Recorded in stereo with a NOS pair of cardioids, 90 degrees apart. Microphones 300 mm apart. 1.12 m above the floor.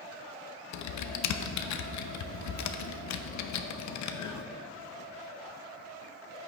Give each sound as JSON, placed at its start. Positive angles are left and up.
{"t": 0.7, "sound": "typing on a keyboard", "azimuth_deg": 65, "distance_m": 0.7}